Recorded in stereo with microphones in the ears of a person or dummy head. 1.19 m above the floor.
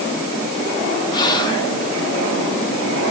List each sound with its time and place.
1.1 s whispering: 20° left (ahead or behind), 0.8 m